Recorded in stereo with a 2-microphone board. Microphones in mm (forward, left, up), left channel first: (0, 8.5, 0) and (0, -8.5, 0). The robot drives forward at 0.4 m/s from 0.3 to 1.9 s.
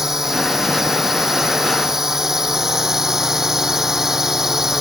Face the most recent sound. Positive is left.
turn(degrees=-25)  # may be behind; listen again after turning